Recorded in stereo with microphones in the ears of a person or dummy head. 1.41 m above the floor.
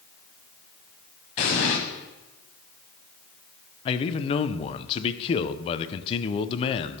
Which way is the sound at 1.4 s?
35° left (ahead or behind).